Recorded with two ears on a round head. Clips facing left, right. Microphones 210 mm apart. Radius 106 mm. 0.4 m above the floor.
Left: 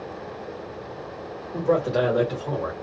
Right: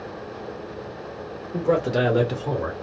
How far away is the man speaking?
About 0.9 m.